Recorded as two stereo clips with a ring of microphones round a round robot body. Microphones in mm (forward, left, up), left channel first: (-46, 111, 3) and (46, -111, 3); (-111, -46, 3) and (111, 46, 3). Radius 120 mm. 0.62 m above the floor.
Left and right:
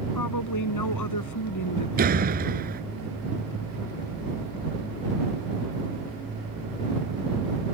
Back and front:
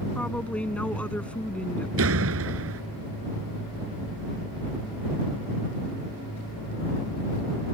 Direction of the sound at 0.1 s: 120° left.